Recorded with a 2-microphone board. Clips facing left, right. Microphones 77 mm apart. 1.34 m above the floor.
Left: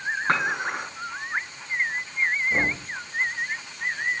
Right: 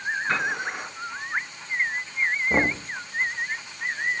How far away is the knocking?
About 1.3 m.